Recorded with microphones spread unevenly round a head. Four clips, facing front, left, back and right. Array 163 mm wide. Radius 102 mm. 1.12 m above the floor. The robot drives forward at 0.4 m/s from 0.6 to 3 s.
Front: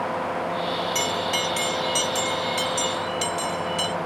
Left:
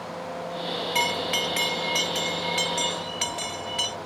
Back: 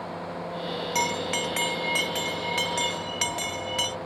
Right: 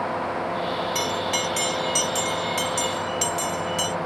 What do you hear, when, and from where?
0.9 s a bell: 155° left; by 4.0 s 170° left